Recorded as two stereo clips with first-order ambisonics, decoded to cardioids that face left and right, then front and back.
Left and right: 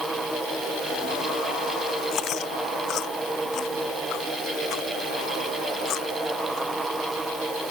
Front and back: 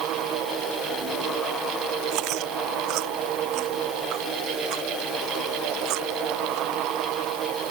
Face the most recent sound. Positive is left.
turn(degrees=145)